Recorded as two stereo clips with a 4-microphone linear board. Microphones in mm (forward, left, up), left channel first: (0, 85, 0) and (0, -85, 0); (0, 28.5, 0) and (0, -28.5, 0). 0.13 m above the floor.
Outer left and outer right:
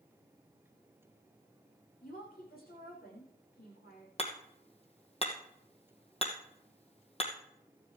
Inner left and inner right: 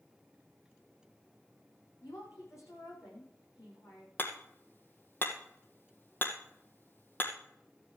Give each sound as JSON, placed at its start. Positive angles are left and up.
{"t": 2.0, "sound": "a woman speaking", "side_deg": 60, "distance_m": 7.5}
{"t": 4.2, "sound": "hammering", "side_deg": 35, "distance_m": 2.5}